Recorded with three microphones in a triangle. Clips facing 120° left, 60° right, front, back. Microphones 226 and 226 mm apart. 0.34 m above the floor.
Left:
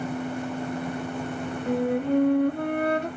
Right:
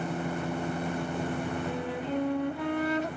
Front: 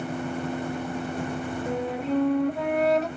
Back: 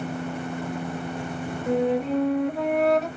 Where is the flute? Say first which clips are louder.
Left 9 dB, back 6 dB; 90° left, 0.6 m.